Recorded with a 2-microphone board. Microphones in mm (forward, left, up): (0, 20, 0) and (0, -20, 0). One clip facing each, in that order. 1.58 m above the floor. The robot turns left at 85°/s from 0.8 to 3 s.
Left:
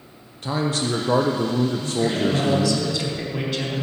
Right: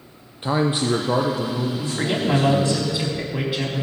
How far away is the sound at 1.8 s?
About 3.5 m.